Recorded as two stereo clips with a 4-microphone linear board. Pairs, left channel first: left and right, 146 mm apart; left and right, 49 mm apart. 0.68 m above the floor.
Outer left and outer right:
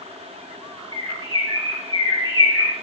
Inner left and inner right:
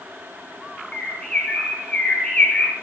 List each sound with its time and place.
0.9 s a bird: 25° left (ahead or behind), 2.0 m